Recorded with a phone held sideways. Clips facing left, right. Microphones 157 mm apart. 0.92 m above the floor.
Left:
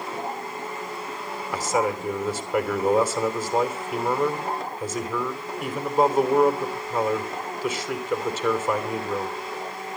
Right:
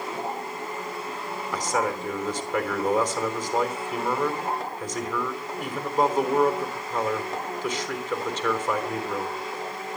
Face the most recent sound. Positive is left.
turn(degrees=5)  # may be behind; listen again after turning